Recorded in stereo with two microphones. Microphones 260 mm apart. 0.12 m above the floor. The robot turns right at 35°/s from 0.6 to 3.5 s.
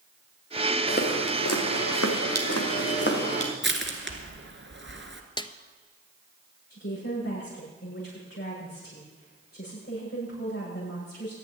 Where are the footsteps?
35° left (ahead or behind), 2.5 m; by 3.5 s 20° left (ahead or behind), 3 m.